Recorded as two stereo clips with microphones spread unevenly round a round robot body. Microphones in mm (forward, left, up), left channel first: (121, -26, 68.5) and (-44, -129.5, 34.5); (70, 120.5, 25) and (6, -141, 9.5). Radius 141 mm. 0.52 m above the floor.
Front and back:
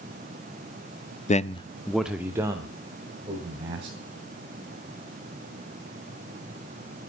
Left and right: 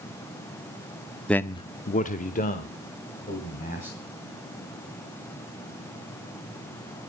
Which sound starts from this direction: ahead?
A man speaking, at 1.3 s.